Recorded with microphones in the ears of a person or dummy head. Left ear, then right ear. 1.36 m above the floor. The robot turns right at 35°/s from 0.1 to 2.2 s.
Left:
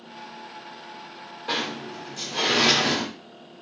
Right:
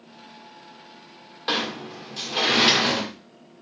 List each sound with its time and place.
1.5 s a sliding door: 55° right (ahead or behind), 1.9 m; by 3.0 s 35° right (ahead or behind), 1.9 m